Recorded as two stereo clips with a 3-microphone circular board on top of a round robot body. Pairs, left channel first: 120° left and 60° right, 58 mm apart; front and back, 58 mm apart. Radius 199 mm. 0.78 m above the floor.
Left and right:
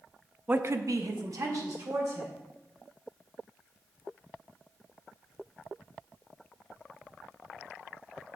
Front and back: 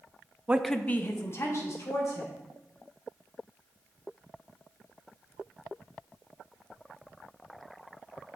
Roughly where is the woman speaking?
Behind right.